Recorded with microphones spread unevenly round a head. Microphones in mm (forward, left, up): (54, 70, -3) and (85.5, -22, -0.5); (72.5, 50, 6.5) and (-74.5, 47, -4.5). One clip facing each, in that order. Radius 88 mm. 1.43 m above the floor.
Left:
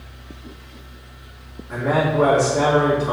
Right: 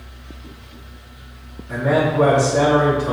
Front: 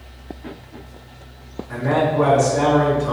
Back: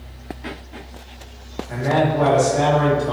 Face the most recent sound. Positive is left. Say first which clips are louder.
# right 2 dB, even
turn(degrees=-120)